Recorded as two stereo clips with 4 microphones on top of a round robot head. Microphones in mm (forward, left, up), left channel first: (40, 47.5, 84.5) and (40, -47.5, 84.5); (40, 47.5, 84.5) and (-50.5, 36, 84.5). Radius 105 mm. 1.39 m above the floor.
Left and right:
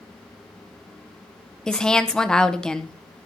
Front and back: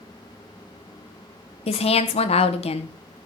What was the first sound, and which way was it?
A woman speaking, 5° left.